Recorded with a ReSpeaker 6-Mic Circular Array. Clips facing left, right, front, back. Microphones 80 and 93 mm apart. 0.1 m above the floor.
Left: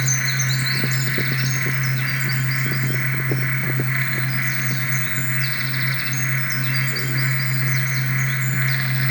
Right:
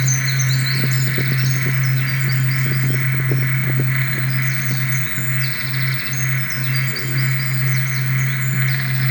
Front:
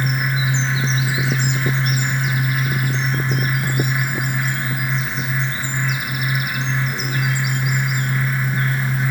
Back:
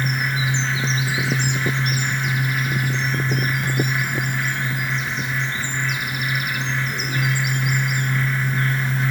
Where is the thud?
I don't hear a thud.